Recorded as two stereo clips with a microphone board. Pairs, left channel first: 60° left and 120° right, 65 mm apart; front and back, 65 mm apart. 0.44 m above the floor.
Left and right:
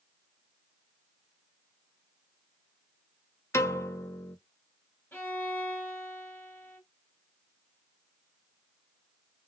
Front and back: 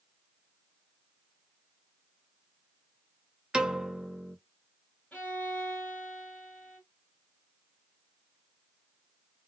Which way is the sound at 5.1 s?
50° left.